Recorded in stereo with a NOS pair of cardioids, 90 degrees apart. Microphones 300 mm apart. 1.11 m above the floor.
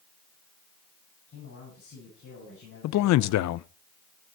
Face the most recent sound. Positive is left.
turn(degrees=70)